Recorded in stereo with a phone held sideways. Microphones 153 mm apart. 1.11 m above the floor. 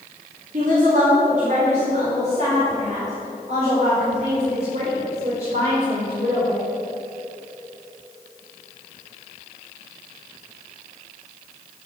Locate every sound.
0.5 s a woman speaking: 55° right (ahead or behind), 2.5 m; by 6.6 s 40° right (ahead or behind), 5.5 m